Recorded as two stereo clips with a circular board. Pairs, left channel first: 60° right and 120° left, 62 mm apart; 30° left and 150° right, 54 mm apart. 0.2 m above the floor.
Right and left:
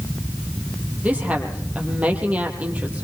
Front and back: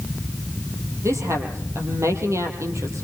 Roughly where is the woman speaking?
Behind.